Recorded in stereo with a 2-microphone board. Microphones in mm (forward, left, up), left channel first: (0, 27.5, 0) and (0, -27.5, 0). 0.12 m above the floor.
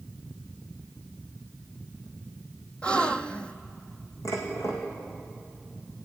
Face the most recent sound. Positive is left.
turn(degrees=70)  # may be behind; listen again after turning